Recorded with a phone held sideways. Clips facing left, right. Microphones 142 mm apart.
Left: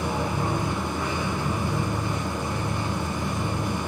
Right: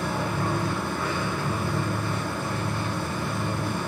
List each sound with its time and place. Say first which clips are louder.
0.0 s a machine running: left 1 dB; 15° left (ahead or behind), 0.8 m